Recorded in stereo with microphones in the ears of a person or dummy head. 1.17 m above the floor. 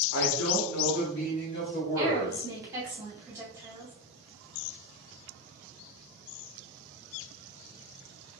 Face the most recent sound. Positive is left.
turn(degrees=-15)  # may be behind; listen again after turning